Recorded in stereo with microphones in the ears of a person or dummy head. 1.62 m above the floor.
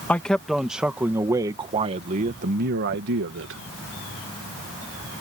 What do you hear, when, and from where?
0.1 s a man speaking: 10° left (ahead or behind); by 3.6 s 70° right (ahead or behind)